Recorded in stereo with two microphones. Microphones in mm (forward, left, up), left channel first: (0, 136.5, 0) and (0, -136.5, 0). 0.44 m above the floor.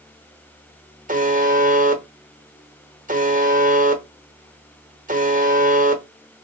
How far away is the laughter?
No laughter in this recording.